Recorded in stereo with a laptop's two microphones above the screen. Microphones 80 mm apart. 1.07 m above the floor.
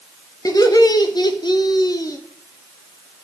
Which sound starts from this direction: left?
Laughter, at 0.5 s.